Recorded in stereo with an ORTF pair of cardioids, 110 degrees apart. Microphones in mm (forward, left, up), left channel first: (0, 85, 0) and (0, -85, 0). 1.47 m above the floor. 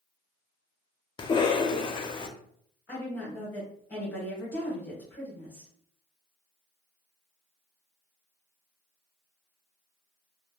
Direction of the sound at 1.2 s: 30° left.